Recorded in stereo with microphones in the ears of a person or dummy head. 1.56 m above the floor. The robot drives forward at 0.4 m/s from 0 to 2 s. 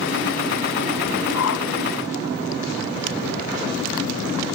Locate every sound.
1.3 s a whoosh: 80° left